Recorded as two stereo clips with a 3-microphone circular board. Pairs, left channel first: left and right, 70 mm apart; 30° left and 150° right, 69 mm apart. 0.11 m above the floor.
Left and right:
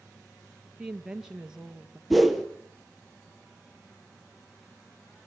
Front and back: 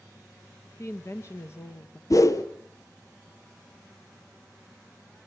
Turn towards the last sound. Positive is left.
turn(degrees=0)